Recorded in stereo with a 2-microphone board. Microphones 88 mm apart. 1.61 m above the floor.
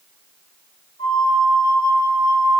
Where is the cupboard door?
I don't hear a cupboard door.